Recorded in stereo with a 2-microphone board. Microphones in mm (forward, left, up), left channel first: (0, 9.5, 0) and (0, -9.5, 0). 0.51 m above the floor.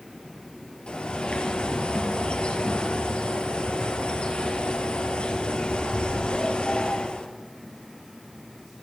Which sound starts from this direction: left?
A bird, at 0.9 s.